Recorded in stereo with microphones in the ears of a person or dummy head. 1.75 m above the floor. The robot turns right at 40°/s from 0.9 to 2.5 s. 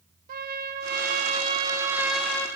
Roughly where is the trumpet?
Ahead right.